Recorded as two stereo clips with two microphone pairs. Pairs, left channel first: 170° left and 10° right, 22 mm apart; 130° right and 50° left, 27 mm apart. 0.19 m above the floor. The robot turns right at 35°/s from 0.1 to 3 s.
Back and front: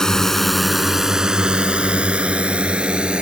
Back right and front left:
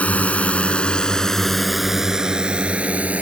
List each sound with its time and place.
0.0 s a drone: 130° right; by 3.2 s 20° left